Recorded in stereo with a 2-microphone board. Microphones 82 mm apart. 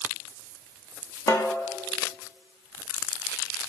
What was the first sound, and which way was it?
A snare drum, 40° left (ahead or behind).